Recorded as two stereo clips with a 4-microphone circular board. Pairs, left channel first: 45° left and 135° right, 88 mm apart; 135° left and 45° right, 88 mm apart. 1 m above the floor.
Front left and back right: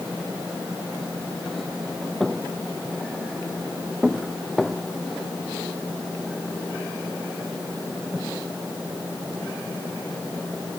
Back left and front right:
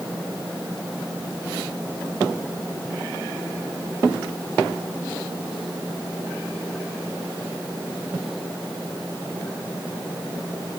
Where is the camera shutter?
I don't hear a camera shutter.